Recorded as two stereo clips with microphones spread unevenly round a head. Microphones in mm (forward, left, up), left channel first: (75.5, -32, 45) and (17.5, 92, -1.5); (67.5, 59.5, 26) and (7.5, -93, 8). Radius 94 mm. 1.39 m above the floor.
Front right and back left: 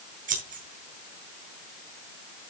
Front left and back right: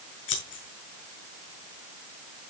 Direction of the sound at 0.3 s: 85° left.